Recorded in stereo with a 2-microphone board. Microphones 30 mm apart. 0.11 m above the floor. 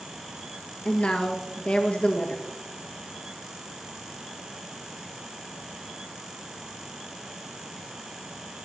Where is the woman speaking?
50° left (ahead or behind), 2.5 m.